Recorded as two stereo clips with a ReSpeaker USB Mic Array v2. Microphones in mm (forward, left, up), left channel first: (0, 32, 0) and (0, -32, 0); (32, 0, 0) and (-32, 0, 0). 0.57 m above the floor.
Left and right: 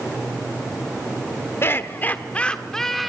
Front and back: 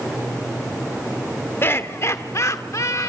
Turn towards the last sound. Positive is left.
turn(degrees=0)